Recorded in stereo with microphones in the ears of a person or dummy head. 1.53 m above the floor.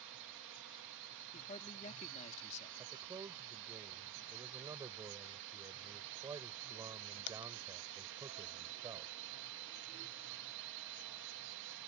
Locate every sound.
0.0 s a drone: 60° right (ahead or behind)
1.3 s a man speaking: 40° left (ahead or behind)
2.8 s a man speaking: 15° right (ahead or behind)